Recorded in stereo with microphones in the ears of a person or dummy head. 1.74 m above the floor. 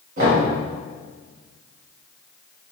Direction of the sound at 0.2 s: 50° right (ahead or behind).